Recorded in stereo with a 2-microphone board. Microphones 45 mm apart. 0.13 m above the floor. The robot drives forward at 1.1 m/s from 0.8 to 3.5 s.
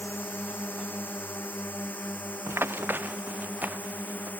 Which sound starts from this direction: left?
A drone, at 0.0 s.